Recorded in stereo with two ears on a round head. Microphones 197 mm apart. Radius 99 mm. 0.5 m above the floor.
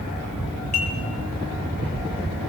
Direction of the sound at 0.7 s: 35° left (ahead or behind).